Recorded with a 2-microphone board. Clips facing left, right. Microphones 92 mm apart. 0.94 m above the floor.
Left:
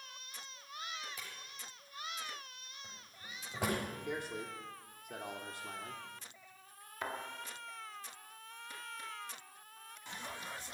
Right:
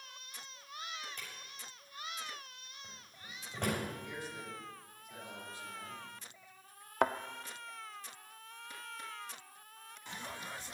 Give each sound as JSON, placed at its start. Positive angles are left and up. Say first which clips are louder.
{"t": 1.2, "sound": "a drawer", "louder": "even", "side_deg": 5, "distance_m": 7.5}
{"t": 4.0, "sound": "a man speaking", "louder": "left 4 dB", "side_deg": 60, "distance_m": 2.5}
{"t": 7.0, "sound": "a thud", "louder": "right 11 dB", "side_deg": -70, "distance_m": 0.8}